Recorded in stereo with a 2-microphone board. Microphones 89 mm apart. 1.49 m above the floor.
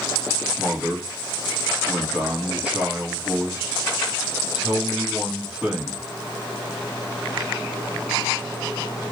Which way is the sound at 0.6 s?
10° right (ahead or behind).